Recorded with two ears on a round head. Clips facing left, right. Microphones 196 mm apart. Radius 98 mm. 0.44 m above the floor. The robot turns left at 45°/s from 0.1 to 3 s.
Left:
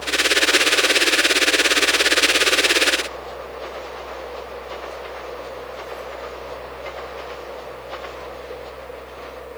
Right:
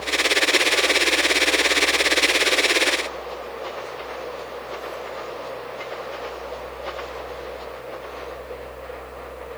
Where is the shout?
No shout in this recording.